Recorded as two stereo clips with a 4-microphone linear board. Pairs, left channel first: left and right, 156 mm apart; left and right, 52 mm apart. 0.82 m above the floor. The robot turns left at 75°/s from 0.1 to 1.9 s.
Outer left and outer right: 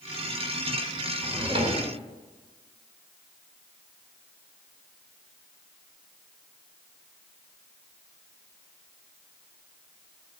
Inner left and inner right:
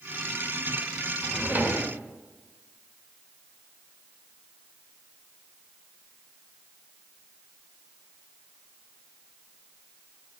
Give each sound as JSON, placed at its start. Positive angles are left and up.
{"t": 1.2, "sound": "a drawer", "azimuth_deg": -10, "distance_m": 2.0}